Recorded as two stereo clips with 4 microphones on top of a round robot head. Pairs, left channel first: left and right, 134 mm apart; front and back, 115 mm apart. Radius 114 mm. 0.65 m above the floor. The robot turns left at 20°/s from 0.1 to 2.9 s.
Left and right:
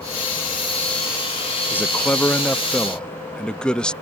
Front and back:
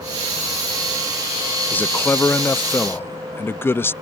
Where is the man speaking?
40° left; by 3.9 s 20° left.